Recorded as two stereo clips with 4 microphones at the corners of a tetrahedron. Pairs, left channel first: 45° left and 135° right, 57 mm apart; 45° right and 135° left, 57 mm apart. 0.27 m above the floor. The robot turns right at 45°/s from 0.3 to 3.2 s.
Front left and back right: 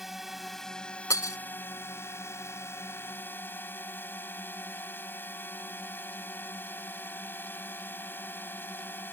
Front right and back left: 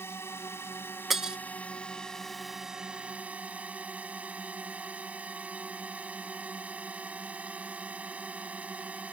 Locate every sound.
0.0 s a drone: 50° right; by 9.1 s 80° left
1.1 s breaking glass: 50° left; by 1.4 s 60° left